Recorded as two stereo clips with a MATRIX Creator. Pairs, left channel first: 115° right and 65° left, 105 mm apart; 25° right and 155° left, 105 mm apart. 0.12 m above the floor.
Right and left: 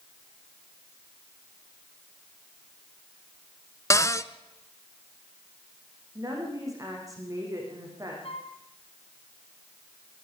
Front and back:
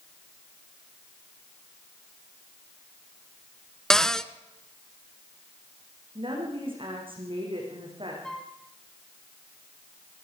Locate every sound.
3.9 s a cupboard door: 100° right, 0.7 m
6.2 s a woman speaking: 125° left, 9 m
8.2 s a flute: 105° right, 2.5 m